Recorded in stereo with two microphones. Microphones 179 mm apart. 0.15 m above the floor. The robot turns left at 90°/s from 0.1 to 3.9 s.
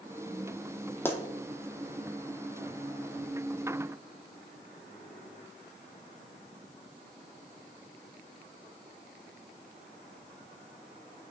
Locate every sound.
1.1 s a pop: 15° left (ahead or behind), 1.0 m; by 1.2 s centre (ahead or behind), 1.0 m